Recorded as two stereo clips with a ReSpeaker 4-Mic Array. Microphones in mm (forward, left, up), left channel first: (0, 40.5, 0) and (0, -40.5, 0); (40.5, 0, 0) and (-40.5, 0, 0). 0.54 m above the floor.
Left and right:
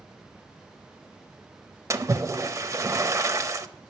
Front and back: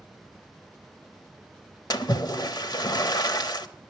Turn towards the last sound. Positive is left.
turn(degrees=-40)